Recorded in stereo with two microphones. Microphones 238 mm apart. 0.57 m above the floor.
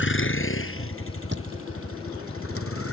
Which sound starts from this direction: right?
A thud, at 1.3 s.